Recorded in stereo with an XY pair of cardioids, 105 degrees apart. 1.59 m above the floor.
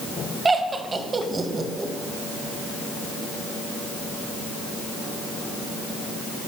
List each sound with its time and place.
0.5 s laughter: 30° right, 1.6 m